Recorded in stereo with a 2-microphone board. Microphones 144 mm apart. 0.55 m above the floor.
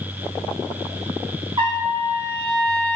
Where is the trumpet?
30° right (ahead or behind), 0.7 m.